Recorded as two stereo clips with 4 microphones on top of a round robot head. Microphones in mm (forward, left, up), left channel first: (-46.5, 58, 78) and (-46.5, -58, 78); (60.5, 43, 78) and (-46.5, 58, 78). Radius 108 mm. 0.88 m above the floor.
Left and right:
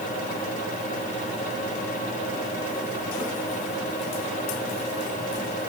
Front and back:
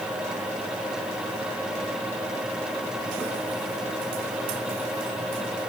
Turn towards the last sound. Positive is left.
No sound to turn to.